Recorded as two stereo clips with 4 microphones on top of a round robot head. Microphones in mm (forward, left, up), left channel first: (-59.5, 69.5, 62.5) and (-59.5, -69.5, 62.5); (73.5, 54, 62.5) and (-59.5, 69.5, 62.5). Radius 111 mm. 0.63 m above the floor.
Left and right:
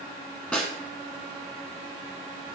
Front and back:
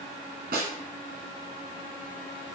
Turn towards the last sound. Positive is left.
turn(degrees=170)